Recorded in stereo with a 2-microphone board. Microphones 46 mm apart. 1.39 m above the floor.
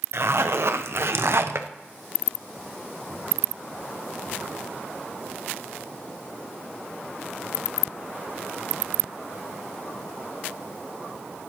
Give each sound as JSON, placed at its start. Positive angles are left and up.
{"t": 0.1, "sound": "a zipper", "side_deg": -60, "distance_m": 0.6}